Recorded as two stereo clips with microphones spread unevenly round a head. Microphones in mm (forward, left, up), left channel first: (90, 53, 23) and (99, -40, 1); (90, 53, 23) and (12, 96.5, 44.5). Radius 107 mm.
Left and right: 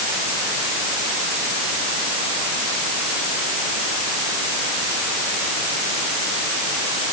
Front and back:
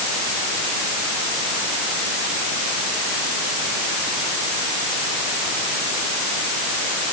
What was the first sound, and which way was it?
Only background noise.